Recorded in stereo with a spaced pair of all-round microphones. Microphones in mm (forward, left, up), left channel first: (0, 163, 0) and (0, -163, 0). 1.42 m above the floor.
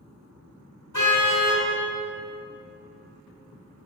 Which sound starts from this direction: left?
A car horn, at 0.9 s.